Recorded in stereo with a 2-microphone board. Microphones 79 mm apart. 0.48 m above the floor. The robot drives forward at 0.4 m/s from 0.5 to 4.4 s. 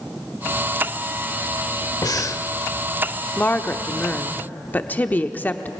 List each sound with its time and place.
2.0 s breathing: 55° left (ahead or behind), 0.6 m; by 2.4 s 40° left (ahead or behind), 0.7 m
3.4 s a woman speaking: 20° left (ahead or behind), 0.8 m